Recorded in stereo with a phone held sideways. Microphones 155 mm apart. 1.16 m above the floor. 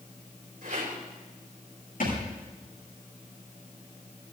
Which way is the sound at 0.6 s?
65° right (ahead or behind).